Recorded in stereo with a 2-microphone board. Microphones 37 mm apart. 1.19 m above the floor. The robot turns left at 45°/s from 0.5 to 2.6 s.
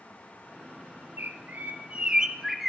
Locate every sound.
1.2 s a bird: 110° right, 3 m; by 2.7 s 175° right, 3 m